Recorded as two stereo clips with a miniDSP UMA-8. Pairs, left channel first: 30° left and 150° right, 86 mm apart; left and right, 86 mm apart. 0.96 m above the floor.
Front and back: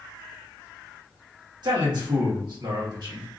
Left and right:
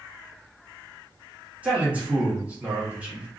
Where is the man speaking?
160° right, 1.4 m.